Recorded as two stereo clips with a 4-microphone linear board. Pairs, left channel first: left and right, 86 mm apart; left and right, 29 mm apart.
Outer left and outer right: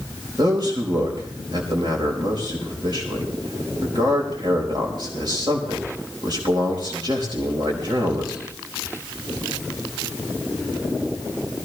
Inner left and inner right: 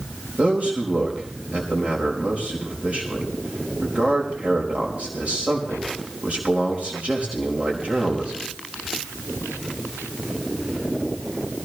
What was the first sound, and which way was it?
A man speaking, 55° right (ahead or behind).